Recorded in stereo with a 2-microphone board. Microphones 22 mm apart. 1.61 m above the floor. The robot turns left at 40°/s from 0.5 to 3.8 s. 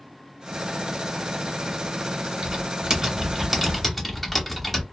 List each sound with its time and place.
2.4 s typing on a keyboard: 135° right, 0.9 m; by 4.8 s 170° left, 0.9 m